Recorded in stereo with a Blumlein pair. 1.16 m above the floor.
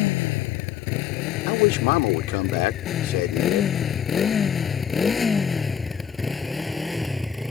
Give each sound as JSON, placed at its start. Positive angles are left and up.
{"t": 0.0, "sound": "a motorcycle", "azimuth_deg": 50}
{"t": 1.5, "sound": "a man speaking", "azimuth_deg": 50}